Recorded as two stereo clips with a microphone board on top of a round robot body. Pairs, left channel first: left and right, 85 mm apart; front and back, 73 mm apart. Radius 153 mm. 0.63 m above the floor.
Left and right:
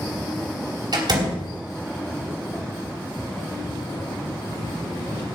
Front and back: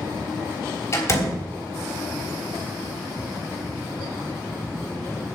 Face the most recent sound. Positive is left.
turn(degrees=-55)